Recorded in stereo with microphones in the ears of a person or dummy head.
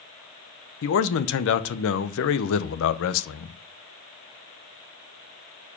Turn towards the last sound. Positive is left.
turn(degrees=70)  # may be behind; listen again after turning